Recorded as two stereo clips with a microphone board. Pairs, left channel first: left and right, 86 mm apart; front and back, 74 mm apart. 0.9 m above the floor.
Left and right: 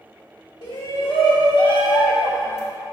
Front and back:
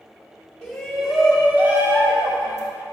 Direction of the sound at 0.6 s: 80° left.